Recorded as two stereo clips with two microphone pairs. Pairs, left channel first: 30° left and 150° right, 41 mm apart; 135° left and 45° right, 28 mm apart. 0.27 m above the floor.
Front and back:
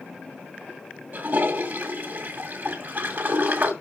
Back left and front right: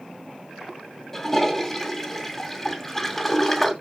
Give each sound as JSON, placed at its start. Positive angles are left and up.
{"t": 1.1, "sound": "a toilet flushing", "azimuth_deg": -145, "distance_m": 1.9}